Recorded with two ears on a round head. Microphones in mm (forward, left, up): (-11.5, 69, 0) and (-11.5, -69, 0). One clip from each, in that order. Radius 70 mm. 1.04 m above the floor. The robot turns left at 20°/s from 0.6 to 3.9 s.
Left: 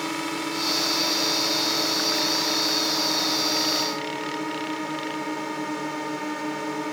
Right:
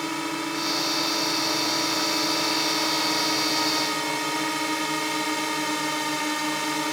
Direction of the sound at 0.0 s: 5° right.